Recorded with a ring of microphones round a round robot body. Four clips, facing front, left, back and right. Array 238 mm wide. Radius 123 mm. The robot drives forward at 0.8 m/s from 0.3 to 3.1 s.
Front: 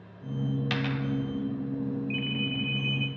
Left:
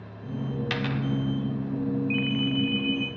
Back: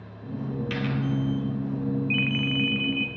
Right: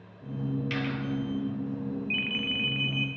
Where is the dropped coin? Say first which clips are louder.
Left 2 dB, back 2 dB; 55° left, 1.1 m; by 1.0 s 70° left, 1.0 m.